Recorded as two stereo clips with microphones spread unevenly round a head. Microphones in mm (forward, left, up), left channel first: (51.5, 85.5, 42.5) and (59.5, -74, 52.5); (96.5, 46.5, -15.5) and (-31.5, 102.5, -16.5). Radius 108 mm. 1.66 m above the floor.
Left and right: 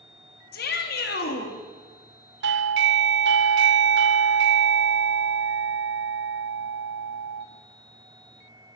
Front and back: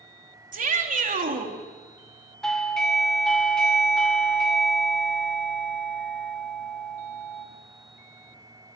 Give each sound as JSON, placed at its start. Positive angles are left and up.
{"t": 0.5, "sound": "a shout", "azimuth_deg": 130, "distance_m": 3.5}
{"t": 2.4, "sound": "a doorbell", "azimuth_deg": -110, "distance_m": 0.8}